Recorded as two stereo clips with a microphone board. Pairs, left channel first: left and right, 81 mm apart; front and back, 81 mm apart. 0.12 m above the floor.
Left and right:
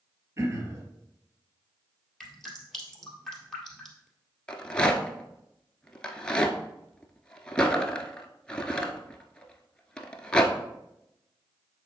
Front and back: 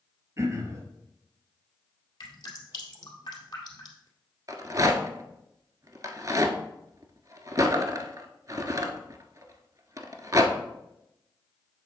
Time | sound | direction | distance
0.4 | throat clearing | 135° right | 1.5 m
2.2 | dripping | 5° left | 2 m
4.5 | a rattle | 165° left | 0.8 m